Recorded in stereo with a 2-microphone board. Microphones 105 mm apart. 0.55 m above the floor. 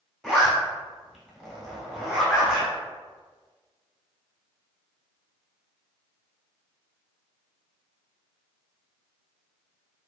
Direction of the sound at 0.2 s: 5° left (ahead or behind).